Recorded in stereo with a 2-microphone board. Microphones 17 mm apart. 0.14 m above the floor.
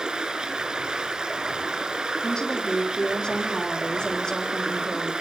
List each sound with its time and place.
0.0 s running water: 65° right (ahead or behind), 4.5 m
2.2 s a woman speaking: 50° left (ahead or behind), 6 m